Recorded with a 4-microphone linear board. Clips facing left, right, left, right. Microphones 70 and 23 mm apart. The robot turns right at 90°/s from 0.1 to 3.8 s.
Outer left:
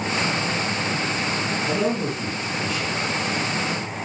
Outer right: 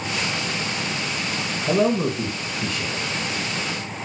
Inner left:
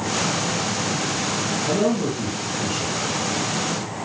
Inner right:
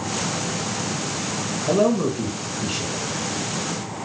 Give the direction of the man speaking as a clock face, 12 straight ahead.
5 o'clock.